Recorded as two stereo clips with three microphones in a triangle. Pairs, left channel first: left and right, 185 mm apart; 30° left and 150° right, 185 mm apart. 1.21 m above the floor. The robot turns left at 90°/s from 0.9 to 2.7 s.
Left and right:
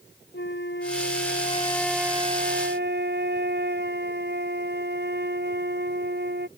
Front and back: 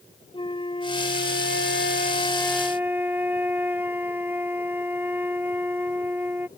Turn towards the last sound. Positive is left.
turn(degrees=-70)